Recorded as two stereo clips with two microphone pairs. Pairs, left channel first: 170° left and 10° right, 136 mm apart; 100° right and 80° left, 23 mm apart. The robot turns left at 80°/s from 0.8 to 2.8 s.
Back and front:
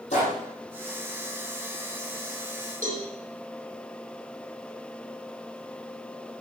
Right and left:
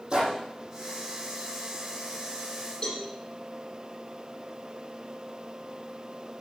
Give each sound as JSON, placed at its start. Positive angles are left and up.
{"t": 0.1, "sound": "a gunshot", "azimuth_deg": 130, "distance_m": 7.0}
{"t": 2.8, "sound": "a cowbell", "azimuth_deg": -40, "distance_m": 7.5}